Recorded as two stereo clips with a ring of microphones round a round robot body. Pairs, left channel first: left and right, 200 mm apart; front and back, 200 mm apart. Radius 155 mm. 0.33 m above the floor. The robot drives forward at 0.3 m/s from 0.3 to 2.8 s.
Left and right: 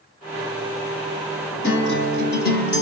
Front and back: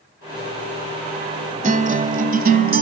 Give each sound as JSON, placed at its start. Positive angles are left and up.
{"t": 1.6, "sound": "a guitar", "azimuth_deg": 130, "distance_m": 1.4}